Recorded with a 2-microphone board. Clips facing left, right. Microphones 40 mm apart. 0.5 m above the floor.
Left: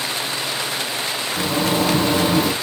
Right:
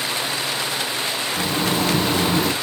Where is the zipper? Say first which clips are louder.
Left 3 dB; centre (ahead or behind), 0.9 m.